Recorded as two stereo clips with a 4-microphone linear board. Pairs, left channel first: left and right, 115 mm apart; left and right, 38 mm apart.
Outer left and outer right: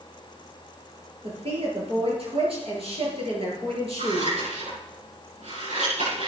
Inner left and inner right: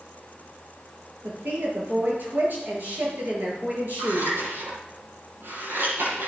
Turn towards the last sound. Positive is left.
turn(degrees=-85)